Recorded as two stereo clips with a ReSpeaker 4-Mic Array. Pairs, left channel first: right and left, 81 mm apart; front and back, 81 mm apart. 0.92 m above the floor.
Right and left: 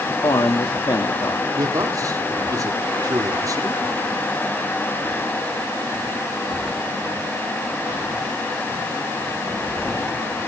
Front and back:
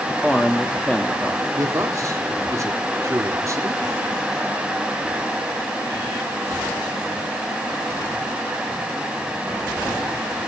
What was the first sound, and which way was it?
A man speaking, 80° right.